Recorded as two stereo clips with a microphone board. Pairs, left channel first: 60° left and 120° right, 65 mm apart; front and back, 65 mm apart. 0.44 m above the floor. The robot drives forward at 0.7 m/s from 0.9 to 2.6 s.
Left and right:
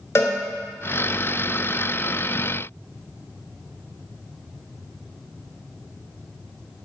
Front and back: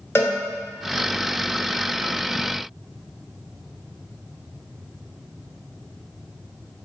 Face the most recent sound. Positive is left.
turn(degrees=160)